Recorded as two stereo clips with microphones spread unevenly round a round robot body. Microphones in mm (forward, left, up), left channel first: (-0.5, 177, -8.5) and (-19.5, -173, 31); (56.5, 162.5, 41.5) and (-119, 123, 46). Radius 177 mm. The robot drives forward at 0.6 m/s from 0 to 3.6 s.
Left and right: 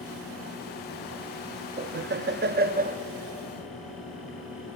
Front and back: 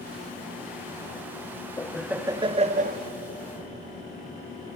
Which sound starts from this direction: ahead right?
Laughter, at 1.8 s.